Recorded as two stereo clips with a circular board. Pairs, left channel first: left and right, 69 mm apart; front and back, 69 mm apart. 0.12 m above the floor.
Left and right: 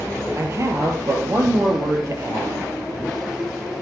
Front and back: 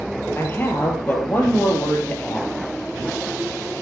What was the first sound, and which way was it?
A man speaking, 55° right.